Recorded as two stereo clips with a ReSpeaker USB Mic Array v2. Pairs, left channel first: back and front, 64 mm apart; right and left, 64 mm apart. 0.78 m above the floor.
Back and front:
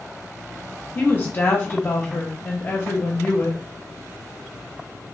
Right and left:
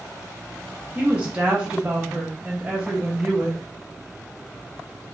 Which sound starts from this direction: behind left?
A woman speaking, at 0.9 s.